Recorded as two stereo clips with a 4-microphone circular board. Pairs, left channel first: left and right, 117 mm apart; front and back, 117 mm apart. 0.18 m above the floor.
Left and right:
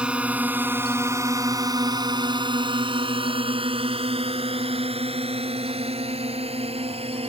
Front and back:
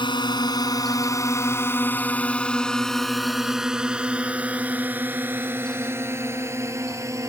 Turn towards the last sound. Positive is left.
turn(degrees=-115)